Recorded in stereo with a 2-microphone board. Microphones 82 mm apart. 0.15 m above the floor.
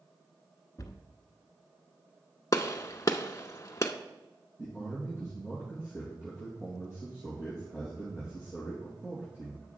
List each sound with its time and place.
0.8 s a cupboard door: 45° left (ahead or behind), 0.7 m
2.5 s a gunshot: 40° left (ahead or behind), 0.6 m
4.6 s a man speaking: 30° right (ahead or behind), 3.5 m